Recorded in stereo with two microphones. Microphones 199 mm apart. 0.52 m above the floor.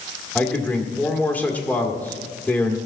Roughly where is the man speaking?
Centre.